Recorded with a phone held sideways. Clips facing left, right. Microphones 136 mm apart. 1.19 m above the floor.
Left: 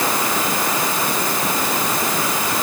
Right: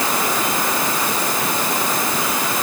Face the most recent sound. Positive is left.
No sound to turn to.